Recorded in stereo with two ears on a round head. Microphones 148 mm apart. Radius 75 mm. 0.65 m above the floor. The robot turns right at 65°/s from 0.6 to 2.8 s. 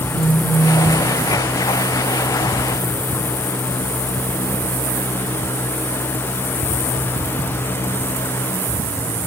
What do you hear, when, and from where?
0.1 s a phone buzzing: 5° right (ahead or behind), 2.5 m; by 1.0 s 30° right (ahead or behind), 2.5 m